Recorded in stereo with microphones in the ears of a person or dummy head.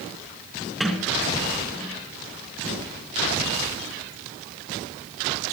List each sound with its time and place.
0.8 s a sliding door: centre (ahead or behind), 3.5 m